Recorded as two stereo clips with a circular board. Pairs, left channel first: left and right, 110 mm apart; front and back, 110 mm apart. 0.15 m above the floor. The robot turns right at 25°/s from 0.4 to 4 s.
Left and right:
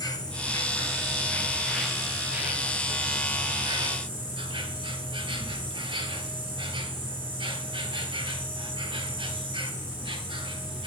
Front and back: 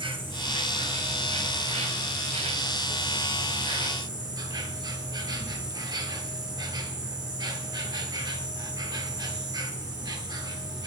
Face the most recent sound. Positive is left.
turn(degrees=-130)